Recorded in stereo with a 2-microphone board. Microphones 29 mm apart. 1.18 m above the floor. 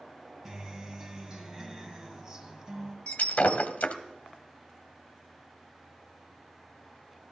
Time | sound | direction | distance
0.5 | a guitar | 20° right (ahead or behind) | 1.4 m
3.1 | breaking glass | 55° left (ahead or behind) | 1.5 m